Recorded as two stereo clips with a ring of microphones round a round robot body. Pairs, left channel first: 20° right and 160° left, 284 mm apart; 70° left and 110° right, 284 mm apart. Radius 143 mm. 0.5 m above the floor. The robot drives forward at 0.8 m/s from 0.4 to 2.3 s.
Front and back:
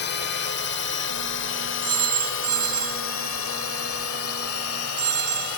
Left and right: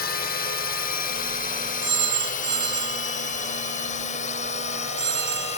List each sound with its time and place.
0.0 s a drone: 20° left; by 5.6 s straight ahead
1.8 s a phone ringing: 160° right; by 5.6 s 165° right